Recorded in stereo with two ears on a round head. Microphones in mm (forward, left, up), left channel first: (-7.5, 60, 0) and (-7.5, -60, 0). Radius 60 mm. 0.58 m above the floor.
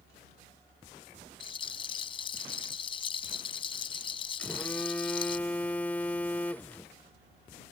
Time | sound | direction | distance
1.4 | a rattle | 40° left (ahead or behind) | ?
4.4 | a phone buzzing | 10° left (ahead or behind) | ?